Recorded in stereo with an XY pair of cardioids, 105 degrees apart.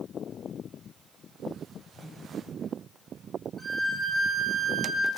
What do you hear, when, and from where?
1.9 s a whoosh: 40° left, 6.5 m
3.6 s a violin: straight ahead, 7 m